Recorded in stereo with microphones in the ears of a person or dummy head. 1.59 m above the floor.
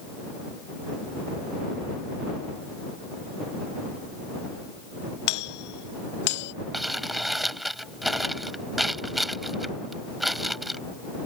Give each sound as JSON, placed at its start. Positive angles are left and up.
{"t": 5.3, "sound": "a doorbell", "side_deg": 65}
{"t": 6.7, "sound": "crumpling", "side_deg": 0}